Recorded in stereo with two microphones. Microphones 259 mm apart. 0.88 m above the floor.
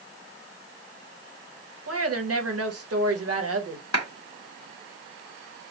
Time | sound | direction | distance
1.9 | a woman speaking | 65° right (ahead or behind) | 1.0 m
3.9 | a clap | 75° left (ahead or behind) | 1.7 m